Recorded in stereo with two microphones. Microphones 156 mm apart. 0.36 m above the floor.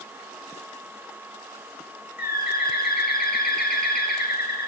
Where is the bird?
85° left, 1.7 m.